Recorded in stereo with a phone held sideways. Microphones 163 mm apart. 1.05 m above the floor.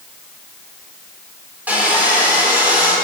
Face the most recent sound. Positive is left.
turn(degrees=-10)  # may be behind; listen again after turning